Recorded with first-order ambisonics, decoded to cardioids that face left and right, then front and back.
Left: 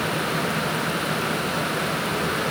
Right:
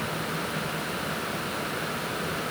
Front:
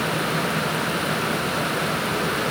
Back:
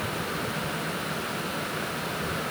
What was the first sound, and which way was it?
Only background noise.